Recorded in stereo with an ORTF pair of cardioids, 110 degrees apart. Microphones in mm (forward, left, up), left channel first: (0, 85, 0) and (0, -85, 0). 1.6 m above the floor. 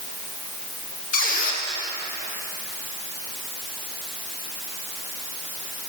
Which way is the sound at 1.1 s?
60° left.